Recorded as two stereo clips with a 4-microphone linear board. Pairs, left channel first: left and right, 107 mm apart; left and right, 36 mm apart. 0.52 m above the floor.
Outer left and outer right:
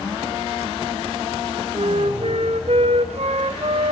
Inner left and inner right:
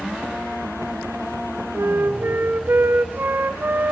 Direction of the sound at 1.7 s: 80° right.